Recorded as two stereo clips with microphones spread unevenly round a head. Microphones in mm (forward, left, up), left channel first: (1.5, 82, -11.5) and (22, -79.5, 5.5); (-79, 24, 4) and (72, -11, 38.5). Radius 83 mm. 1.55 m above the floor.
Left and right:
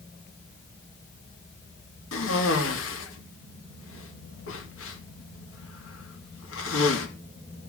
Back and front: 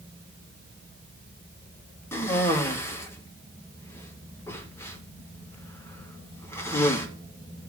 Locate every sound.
2.1 s a cough: 90° left, 2.5 m